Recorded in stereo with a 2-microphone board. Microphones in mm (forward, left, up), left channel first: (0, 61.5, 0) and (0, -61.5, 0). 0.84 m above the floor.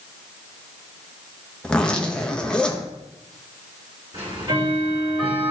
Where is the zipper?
5° left (ahead or behind), 0.9 m.